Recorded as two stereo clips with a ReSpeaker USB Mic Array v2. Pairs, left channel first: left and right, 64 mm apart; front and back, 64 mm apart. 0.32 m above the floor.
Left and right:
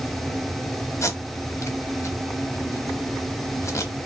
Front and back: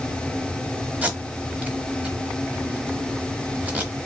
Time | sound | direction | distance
1.0 | tape being pulled | 115° left | 1.0 m